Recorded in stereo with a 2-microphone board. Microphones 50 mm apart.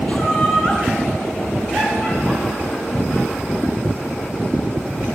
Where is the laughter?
20° left (ahead or behind), 1.4 m; by 5.0 s 10° left (ahead or behind), 7.5 m.